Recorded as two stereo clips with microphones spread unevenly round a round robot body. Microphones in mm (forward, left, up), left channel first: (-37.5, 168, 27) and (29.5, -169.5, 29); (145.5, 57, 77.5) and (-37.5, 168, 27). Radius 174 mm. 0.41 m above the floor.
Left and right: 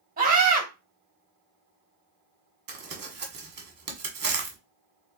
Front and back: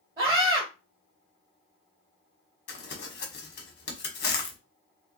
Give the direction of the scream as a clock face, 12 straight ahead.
5 o'clock.